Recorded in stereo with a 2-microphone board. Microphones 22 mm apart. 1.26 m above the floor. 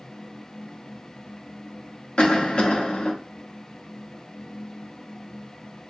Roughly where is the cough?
Left.